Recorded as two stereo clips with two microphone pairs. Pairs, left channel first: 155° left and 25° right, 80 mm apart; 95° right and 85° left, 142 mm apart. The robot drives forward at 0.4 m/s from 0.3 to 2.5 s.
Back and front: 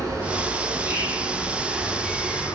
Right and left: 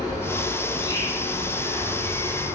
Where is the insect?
40° right, 0.8 m; by 2.6 s 145° right, 0.8 m.